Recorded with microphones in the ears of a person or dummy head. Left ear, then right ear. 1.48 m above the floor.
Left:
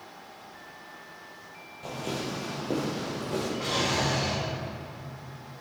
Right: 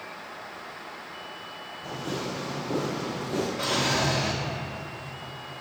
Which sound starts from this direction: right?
A drawer, at 3.6 s.